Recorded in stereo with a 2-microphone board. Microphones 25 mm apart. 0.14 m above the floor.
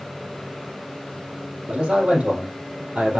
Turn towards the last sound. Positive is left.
turn(degrees=-70)  # may be behind; listen again after turning